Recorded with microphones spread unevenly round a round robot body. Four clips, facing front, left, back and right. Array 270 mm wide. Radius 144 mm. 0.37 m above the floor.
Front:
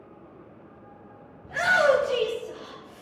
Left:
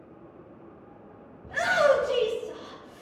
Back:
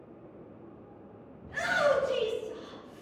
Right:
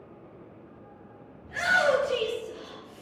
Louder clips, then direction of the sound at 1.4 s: Left 2 dB, front 6 dB; 25° left.